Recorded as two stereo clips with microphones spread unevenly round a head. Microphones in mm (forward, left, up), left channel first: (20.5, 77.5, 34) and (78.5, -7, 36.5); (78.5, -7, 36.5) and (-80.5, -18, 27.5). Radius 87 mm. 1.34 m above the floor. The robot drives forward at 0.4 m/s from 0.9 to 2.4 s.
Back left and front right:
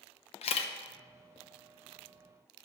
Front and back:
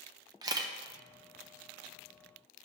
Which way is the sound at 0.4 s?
120° left.